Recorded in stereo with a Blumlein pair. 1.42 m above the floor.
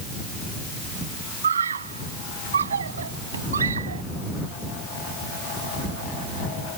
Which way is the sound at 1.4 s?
70° right.